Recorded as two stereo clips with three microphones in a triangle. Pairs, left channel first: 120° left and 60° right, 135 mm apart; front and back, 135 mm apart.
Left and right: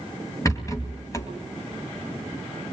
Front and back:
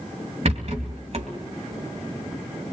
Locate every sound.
0.5 s a rattle: straight behind, 2.5 m